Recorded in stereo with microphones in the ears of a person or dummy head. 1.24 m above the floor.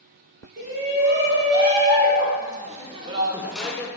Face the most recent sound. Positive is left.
turn(degrees=15)  # may be behind; listen again after turning